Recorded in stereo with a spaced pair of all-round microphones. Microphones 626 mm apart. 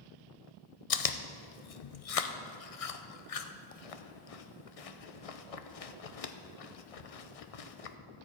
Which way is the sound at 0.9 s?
65° left (ahead or behind).